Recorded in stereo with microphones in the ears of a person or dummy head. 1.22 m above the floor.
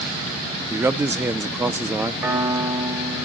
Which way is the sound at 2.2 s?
20° right (ahead or behind).